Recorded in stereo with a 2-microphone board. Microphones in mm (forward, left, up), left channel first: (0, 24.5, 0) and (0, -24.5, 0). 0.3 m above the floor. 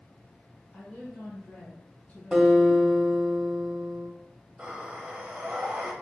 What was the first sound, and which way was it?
A woman speaking, 35° left (ahead or behind).